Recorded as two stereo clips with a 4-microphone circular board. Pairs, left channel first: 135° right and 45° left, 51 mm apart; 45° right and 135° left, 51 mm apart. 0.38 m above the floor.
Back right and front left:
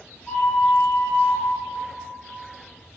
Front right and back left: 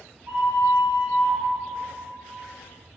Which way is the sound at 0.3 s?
145° left.